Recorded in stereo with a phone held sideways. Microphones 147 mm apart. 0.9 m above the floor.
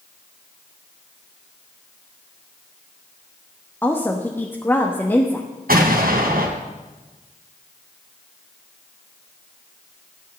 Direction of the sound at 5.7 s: 75° right (ahead or behind).